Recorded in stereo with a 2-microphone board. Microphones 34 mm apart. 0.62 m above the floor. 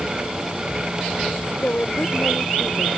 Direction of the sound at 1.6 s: 60° left (ahead or behind).